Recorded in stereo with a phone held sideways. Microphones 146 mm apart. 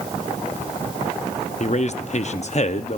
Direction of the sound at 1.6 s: 50° left (ahead or behind).